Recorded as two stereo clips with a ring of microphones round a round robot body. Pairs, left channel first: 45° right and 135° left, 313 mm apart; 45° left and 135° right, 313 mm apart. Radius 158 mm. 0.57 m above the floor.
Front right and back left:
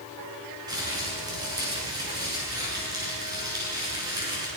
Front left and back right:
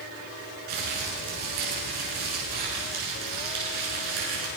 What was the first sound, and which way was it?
Crumpling, 145° right.